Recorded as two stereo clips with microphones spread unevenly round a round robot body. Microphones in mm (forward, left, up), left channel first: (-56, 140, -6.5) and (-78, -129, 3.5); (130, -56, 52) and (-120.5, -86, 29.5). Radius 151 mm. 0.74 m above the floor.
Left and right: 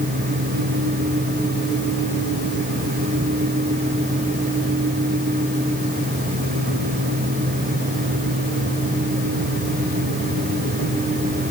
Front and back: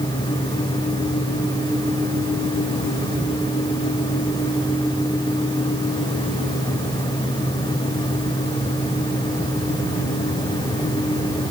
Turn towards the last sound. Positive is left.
No sound to turn to.